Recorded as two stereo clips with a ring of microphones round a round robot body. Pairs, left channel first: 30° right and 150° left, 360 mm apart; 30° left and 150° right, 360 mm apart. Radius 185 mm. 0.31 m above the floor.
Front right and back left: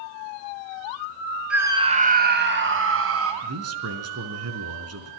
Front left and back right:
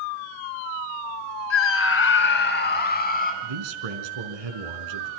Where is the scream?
65° left, 1.6 m; by 3.3 s 95° left, 4 m.